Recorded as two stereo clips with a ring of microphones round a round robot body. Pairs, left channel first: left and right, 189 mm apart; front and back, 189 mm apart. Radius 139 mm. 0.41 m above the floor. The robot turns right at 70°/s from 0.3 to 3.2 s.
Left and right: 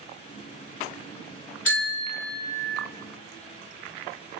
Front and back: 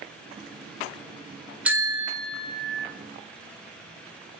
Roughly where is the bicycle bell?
Left.